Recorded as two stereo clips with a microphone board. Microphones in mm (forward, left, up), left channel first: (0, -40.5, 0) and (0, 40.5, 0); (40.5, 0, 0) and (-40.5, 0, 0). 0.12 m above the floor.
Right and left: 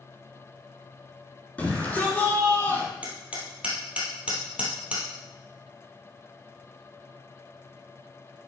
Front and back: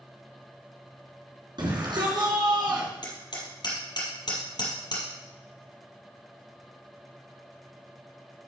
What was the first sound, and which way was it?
A shout, 165° right.